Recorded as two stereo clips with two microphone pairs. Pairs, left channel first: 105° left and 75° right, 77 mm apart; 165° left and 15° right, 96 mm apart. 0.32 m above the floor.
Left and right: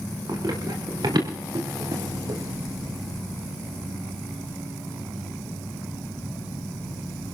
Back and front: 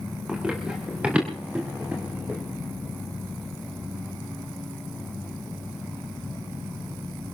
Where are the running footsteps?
90° right, 7 m; by 2.4 s 85° right, 5.5 m.